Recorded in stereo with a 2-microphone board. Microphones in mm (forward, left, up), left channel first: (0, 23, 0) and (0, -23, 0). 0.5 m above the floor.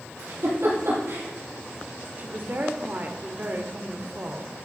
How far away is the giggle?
About 4.5 m.